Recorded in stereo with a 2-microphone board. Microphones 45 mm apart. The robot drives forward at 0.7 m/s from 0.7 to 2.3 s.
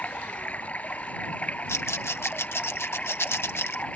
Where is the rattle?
80° left; by 3.8 s 70° left (ahead or behind).